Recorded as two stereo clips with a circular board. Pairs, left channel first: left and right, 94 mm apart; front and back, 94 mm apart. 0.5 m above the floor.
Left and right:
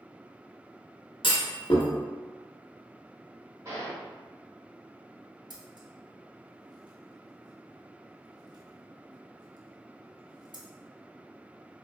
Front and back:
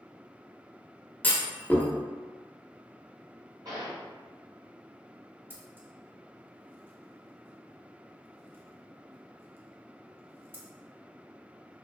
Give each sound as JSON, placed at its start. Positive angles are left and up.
{"t": 1.2, "sound": "a clunk", "azimuth_deg": 70, "distance_m": 0.6}
{"t": 3.6, "sound": "a gunshot", "azimuth_deg": -135, "distance_m": 1.4}
{"t": 5.5, "sound": "scissors", "azimuth_deg": -115, "distance_m": 0.6}